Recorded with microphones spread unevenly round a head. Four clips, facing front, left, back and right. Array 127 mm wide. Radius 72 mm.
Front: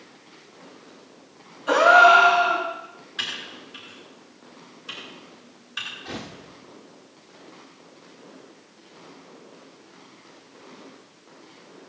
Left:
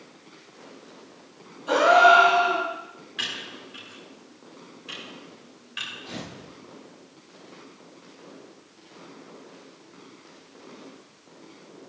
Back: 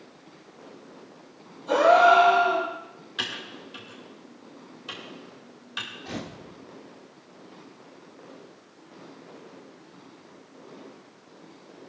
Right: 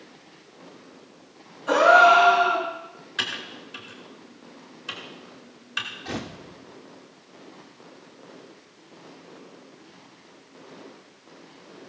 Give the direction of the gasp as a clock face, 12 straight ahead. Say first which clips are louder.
Right 1 dB, front 3 dB; 12 o'clock.